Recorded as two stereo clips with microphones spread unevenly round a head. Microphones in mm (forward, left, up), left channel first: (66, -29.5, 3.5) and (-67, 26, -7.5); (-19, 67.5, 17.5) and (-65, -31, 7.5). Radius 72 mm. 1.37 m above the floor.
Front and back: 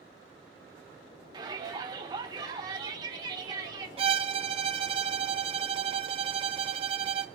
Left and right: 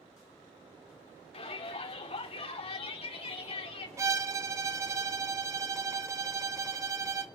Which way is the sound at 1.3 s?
95° left.